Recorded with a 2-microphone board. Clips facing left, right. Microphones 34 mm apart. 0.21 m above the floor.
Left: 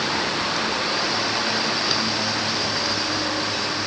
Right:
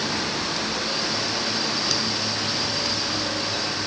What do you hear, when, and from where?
Only background noise.